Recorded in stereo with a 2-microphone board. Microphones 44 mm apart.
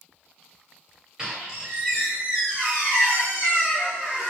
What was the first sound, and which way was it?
A squeak, 20° right (ahead or behind).